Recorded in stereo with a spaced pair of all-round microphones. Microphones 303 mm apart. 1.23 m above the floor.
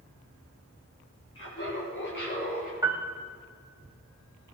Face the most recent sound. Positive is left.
turn(degrees=-10)  # may be behind; listen again after turning